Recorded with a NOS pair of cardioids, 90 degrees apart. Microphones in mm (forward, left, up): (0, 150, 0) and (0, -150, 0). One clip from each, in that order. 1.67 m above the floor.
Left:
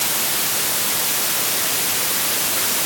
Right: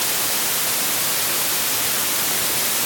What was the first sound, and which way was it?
Only background noise.